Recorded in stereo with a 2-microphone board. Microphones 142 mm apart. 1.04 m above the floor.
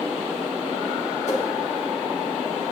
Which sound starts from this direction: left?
A whoosh, at 1.3 s.